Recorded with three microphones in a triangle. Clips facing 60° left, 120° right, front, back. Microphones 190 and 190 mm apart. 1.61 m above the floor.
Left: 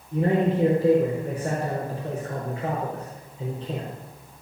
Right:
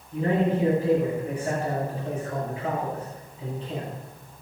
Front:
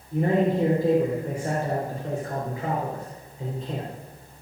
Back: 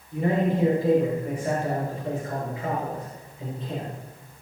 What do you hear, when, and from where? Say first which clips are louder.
0.1 s a man speaking: left 2 dB, front 2 dB; 40° left, 4.5 m